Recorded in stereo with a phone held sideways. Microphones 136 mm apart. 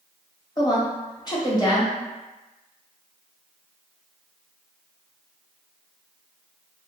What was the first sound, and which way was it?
A woman speaking, 30° left (ahead or behind).